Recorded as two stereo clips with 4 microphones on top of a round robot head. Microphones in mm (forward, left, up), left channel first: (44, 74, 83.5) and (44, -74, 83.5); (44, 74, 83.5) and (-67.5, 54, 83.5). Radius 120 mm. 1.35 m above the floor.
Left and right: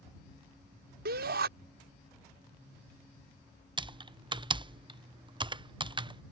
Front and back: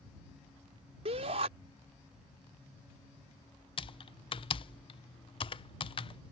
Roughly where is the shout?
Behind right.